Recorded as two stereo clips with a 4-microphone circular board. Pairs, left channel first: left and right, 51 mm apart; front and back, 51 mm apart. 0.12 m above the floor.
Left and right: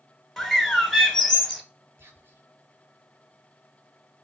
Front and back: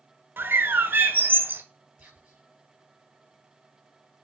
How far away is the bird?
About 0.8 m.